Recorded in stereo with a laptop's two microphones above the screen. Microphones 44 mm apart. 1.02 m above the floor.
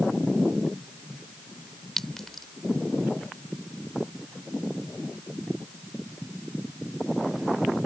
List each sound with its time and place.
2.0 s a clink: 5° left (ahead or behind)